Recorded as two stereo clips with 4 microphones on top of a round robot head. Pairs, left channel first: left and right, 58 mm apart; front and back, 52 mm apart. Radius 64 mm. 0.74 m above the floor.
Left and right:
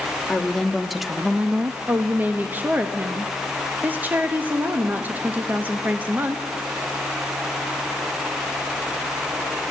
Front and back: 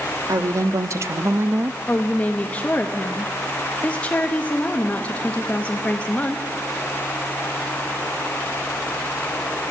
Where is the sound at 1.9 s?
50° right, 1.0 m.